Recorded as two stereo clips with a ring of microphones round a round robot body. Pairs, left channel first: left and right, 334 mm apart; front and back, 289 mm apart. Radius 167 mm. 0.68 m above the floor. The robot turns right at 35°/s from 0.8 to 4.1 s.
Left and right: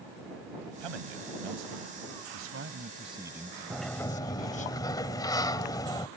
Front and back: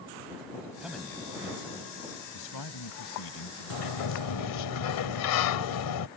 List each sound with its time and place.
0.8 s a man speaking: 95° right; by 4.7 s 20° left
3.7 s a sliding door: 5° right; by 6.1 s 10° left